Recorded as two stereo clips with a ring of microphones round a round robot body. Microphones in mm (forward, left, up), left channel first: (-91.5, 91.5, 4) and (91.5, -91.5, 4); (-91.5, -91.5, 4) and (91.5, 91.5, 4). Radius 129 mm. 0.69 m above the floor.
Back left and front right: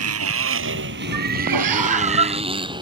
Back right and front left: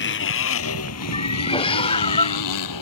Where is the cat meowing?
65° right.